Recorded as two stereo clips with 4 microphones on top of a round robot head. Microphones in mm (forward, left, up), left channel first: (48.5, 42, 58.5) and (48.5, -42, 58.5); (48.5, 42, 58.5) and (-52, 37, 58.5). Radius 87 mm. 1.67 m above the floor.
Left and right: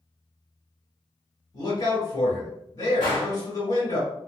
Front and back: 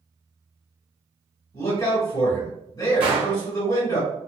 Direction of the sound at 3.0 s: 150° left.